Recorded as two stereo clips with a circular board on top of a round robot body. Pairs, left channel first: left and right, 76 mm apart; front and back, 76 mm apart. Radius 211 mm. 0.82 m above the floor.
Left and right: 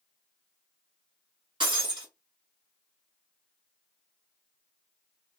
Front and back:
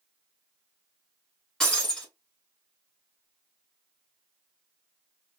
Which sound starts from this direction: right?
Breaking glass, at 1.6 s.